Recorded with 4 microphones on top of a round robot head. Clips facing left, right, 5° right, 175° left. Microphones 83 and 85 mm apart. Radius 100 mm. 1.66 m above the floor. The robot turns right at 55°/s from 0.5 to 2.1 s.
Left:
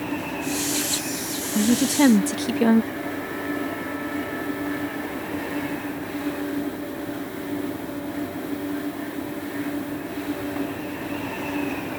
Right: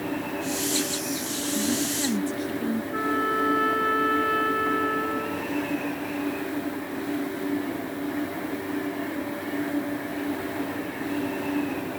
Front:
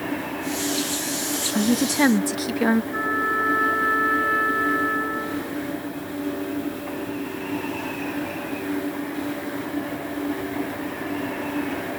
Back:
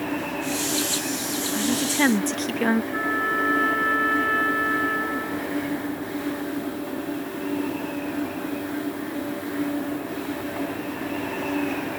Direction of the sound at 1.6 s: 45° left.